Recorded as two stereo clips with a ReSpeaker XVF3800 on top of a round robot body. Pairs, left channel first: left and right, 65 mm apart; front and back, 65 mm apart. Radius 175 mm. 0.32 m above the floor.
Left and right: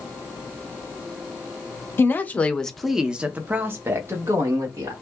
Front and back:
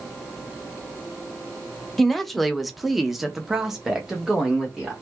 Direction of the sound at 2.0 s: 80° left.